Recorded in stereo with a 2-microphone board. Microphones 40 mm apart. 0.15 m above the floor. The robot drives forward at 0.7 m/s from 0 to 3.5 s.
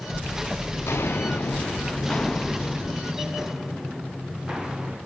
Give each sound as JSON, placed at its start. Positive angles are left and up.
{"t": 0.7, "sound": "footsteps", "side_deg": 85, "distance_m": 1.7}